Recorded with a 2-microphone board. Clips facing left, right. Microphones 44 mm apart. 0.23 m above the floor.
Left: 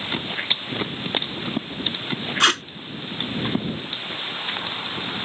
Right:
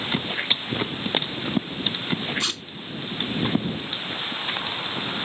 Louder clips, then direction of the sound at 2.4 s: Left 10 dB; 75° left (ahead or behind).